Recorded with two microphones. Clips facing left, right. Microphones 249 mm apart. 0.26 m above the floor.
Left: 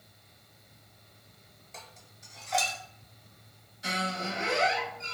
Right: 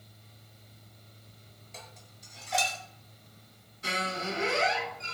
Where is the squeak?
60° right (ahead or behind), 1.9 m.